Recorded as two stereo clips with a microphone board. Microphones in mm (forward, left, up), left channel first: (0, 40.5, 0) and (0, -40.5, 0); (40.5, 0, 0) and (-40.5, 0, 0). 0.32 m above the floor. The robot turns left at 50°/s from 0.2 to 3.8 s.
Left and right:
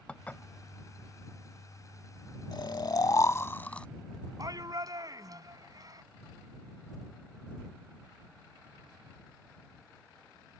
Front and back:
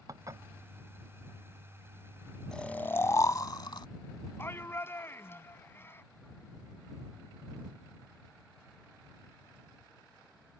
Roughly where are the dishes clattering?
Behind.